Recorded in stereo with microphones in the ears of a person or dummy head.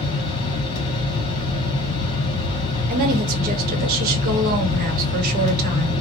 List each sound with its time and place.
0.0 s a fan: 30° left (ahead or behind), 1.5 m
2.9 s a woman speaking: 50° right (ahead or behind), 1.0 m